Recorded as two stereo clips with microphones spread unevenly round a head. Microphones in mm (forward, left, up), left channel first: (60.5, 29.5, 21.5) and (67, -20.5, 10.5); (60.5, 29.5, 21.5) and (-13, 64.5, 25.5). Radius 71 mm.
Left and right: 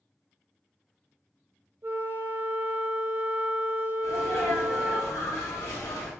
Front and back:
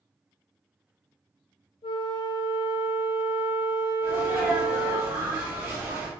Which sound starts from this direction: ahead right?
A flute, at 1.8 s.